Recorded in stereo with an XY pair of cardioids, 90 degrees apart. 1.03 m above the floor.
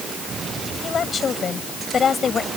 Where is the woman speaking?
50° left.